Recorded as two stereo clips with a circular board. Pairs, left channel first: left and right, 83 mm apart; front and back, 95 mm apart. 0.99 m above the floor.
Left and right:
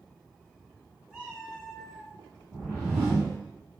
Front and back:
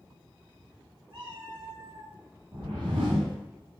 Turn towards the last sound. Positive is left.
turn(degrees=-155)